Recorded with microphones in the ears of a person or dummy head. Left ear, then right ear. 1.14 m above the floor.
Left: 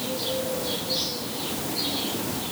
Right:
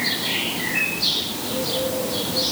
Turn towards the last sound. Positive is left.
No sound to turn to.